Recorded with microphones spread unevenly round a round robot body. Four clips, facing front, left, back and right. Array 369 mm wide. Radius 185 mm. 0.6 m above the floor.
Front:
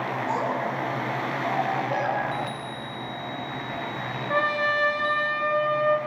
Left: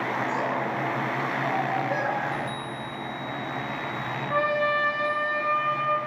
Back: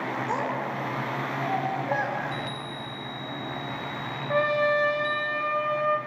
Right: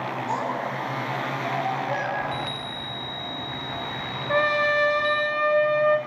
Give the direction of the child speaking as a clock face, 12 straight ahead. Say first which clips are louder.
Even, front 3 dB; 5 o'clock.